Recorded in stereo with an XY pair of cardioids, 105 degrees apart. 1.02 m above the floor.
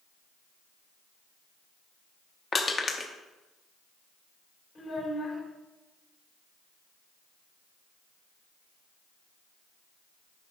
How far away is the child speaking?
About 2.5 m.